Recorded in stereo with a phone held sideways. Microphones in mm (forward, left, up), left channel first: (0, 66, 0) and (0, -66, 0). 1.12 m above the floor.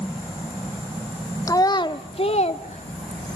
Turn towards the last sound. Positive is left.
turn(degrees=70)  # may be behind; listen again after turning